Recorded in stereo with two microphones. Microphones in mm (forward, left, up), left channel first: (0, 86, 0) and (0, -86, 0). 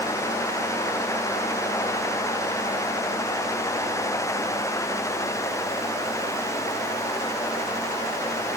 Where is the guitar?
No guitar in this recording.